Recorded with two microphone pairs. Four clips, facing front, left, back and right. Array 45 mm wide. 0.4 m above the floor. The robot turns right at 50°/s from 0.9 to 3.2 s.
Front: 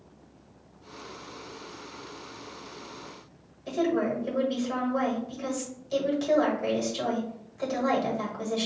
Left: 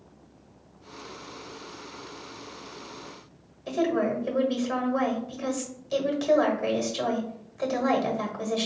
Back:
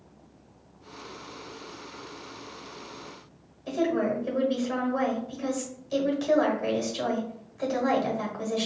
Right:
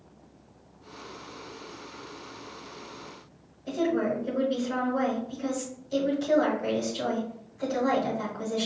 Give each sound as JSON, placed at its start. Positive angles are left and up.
{"t": 3.7, "sound": "a woman speaking", "azimuth_deg": 95, "distance_m": 1.4}